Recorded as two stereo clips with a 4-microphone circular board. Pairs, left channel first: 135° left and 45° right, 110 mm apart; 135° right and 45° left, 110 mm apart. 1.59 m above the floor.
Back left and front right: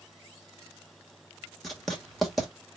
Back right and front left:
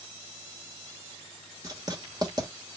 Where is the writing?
45° left, 1.1 m.